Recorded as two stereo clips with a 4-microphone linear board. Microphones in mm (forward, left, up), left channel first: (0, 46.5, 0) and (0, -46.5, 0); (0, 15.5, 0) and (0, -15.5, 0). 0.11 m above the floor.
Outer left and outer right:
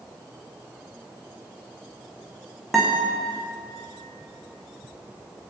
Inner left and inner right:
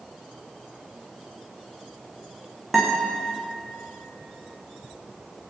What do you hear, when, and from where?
2.7 s a guitar: 5° right (ahead or behind), 6.5 m